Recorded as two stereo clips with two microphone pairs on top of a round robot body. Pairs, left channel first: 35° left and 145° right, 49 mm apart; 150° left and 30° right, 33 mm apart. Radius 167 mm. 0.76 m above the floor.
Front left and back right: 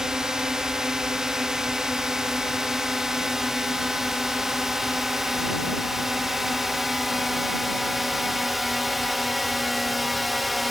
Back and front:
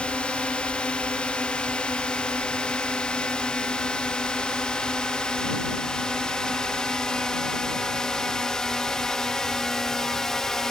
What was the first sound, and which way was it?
A drone, 140° left.